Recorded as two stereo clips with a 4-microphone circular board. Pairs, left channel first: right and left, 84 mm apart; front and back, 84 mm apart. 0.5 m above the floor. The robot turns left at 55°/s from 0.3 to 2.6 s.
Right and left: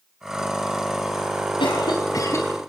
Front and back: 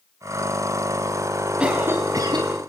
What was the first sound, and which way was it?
A cough, 105° right.